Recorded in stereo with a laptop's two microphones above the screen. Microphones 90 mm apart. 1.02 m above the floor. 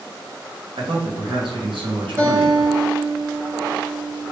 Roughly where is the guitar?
Right.